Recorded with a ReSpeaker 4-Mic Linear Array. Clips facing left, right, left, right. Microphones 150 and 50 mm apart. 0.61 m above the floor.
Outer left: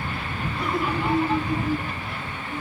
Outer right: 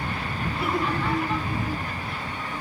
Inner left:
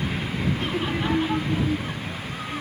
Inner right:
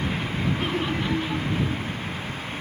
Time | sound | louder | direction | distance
0.6 | laughter | outer left 1 dB, even | 10° right (ahead or behind) | ?